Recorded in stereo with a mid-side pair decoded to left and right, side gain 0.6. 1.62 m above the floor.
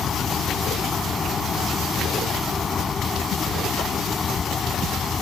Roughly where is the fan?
Ahead left.